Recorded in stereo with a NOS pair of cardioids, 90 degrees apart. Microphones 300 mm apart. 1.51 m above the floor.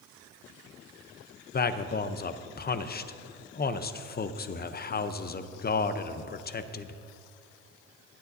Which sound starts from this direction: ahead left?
A man speaking, at 1.5 s.